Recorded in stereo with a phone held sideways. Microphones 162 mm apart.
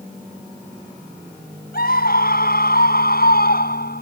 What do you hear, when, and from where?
1.7 s a scream: 70° left (ahead or behind)